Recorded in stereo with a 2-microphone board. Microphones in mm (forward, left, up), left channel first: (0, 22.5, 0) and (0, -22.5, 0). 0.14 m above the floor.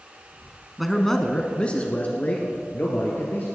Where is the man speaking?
Centre (ahead or behind), 1.2 m; by 3.5 s 40° left (ahead or behind), 3 m.